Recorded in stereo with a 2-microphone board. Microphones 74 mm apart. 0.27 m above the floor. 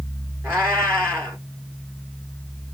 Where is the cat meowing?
30° right (ahead or behind), 2.5 m.